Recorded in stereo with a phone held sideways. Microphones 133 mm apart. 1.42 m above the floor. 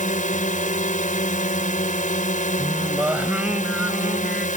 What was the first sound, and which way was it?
A drone, 75° left (ahead or behind).